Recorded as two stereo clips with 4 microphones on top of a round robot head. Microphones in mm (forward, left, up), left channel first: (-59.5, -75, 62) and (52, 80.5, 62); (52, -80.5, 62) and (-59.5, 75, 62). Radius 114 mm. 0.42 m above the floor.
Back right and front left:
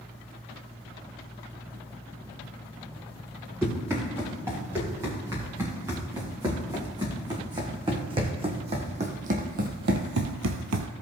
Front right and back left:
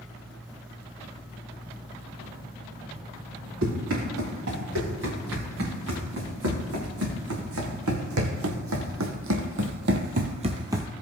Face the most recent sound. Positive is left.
turn(degrees=45)